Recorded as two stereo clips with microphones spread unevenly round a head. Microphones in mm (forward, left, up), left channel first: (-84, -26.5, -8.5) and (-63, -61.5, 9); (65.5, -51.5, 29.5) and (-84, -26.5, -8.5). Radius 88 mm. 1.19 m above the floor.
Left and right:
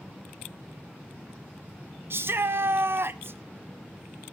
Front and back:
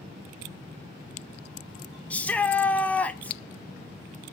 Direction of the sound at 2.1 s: 95° right.